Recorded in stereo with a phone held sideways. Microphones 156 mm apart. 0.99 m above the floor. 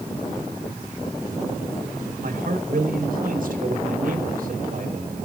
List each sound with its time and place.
2.2 s a man speaking: 65° right (ahead or behind), 3.5 m